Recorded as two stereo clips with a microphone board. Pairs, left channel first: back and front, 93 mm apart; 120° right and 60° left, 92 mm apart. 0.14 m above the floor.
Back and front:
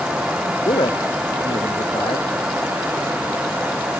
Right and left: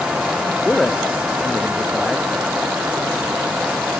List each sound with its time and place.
0.7 s a man speaking: 155° left